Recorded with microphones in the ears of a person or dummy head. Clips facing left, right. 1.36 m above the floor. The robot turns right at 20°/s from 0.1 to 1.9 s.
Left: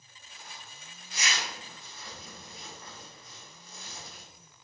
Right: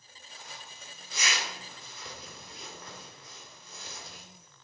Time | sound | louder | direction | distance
0.3 | a zipper | right 1 dB | 70° right (ahead or behind) | 2.5 m